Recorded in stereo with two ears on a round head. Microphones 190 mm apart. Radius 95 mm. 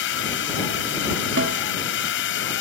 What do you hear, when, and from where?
0.0 s a drone: 60° left (ahead or behind)
1.4 s a snare drum: 55° right (ahead or behind)